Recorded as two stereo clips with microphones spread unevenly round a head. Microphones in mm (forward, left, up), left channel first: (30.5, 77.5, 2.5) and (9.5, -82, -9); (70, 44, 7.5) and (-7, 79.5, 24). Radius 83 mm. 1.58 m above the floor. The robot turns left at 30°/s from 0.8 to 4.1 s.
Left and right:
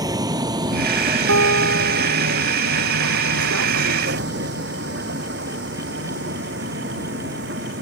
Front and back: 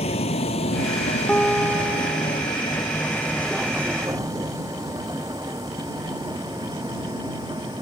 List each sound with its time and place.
0.0 s a vehicle: 30° right; by 7.8 s 135° right
1.3 s a guitar: 110° right; by 2.5 s 145° right